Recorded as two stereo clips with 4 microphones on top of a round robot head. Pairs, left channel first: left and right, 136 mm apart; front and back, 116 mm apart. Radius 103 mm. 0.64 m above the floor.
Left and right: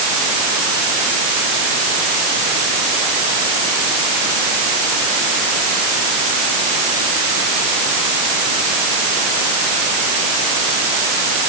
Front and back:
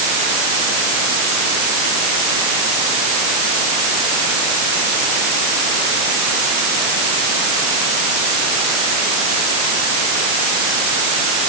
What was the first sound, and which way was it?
Only background noise.